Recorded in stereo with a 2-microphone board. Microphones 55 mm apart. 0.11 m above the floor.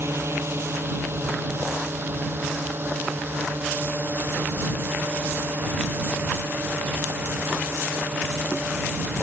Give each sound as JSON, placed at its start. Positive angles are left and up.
{"t": 0.0, "sound": "a drone", "side_deg": -50}